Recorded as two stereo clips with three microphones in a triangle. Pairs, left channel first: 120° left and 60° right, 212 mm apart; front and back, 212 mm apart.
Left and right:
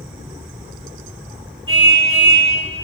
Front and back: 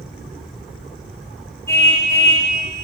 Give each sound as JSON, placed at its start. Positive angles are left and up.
{"t": 1.7, "sound": "a car horn", "azimuth_deg": -75, "distance_m": 6.5}